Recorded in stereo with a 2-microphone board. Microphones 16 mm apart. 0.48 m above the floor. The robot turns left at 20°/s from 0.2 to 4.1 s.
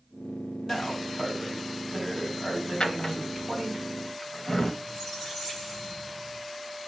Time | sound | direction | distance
0.6 | a man speaking | 50° left | 1.8 m
2.8 | a drawer | 60° left (ahead or behind) | 0.6 m
4.8 | a squeak | 5° left (ahead or behind) | 3 m